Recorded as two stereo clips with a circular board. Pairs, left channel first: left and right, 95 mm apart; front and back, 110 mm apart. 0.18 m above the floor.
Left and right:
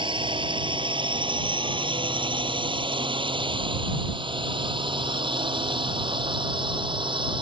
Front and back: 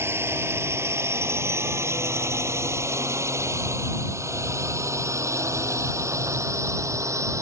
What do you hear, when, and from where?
0.0 s a drone: 115° right